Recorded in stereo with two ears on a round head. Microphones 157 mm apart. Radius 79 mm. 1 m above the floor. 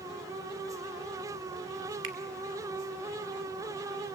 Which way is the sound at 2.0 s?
80° right.